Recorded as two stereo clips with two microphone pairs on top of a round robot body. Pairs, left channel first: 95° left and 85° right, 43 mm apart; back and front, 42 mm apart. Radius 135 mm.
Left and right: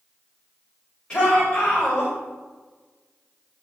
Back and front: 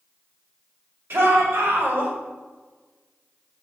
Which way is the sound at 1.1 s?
20° left.